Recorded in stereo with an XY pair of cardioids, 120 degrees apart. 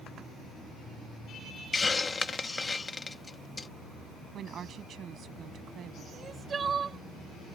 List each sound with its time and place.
1.7 s a hiss: 20° left
4.3 s a woman speaking: 50° right
6.1 s crying: 35° right